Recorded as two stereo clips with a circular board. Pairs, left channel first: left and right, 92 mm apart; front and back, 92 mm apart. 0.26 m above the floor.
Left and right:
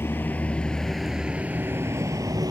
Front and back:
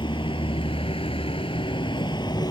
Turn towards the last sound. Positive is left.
turn(degrees=-40)